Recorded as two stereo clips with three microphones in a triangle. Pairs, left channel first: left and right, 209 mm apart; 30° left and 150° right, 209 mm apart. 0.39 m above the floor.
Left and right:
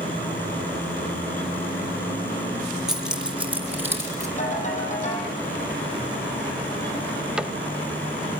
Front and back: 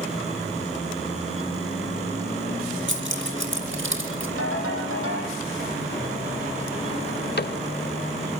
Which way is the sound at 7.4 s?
5° right.